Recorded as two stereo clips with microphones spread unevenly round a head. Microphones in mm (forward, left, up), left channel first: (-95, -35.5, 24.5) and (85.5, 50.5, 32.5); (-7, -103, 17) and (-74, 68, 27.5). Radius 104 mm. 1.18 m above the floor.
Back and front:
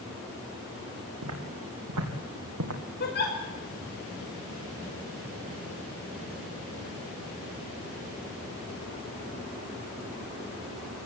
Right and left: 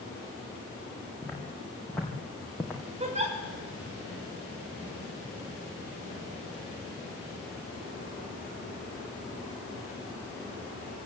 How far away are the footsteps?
About 5.5 m.